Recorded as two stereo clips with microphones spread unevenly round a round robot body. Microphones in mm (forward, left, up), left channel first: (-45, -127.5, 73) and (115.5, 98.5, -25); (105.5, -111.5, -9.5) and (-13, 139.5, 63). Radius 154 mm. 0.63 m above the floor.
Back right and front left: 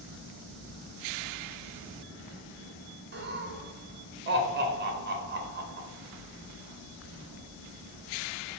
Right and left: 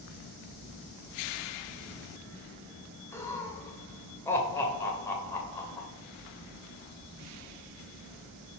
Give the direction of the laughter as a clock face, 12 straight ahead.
12 o'clock.